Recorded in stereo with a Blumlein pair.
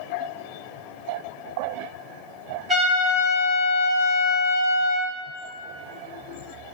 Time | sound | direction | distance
2.7 | a trumpet | 15° right | 1.4 m